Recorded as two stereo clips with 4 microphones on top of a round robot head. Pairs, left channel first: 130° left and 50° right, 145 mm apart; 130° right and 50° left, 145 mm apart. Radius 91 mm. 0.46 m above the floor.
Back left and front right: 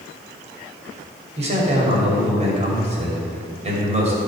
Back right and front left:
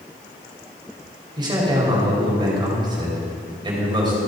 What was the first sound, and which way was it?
A man speaking, 10° right.